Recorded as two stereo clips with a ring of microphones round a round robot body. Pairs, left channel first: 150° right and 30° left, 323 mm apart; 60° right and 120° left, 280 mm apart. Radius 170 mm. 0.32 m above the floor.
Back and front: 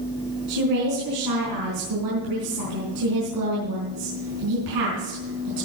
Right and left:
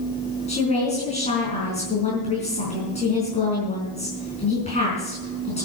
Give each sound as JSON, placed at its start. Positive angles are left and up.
{"t": 0.5, "sound": "a woman speaking", "azimuth_deg": 5, "distance_m": 4.5}